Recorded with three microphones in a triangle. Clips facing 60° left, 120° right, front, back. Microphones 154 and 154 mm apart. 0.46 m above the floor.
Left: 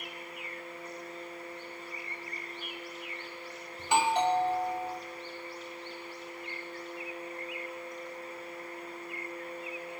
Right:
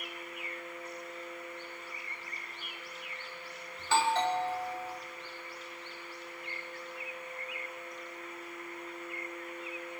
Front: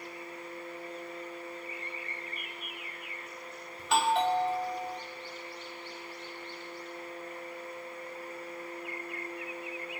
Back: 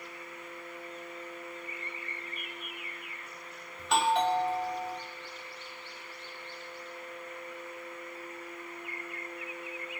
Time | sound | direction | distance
3.8 | a doorbell | 85° left | 1.1 m